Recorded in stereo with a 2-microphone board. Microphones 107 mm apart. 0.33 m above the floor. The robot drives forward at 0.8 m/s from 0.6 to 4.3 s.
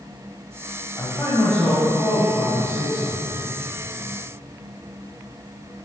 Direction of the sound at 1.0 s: 25° left (ahead or behind).